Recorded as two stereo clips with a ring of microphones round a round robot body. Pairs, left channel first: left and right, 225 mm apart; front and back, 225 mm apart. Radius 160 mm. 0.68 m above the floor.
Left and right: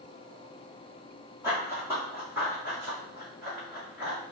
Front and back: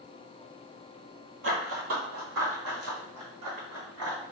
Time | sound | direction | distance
1.4 | running footsteps | 170° right | 1.1 m